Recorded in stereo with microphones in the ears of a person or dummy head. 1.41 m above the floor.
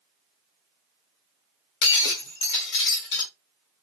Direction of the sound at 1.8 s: 60° left (ahead or behind).